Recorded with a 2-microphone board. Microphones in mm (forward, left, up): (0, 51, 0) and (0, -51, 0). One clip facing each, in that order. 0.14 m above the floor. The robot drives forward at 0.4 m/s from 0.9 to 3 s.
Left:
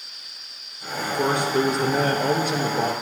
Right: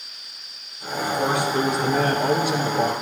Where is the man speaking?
55° left (ahead or behind), 2 m; by 2.9 s 45° left (ahead or behind), 2.5 m.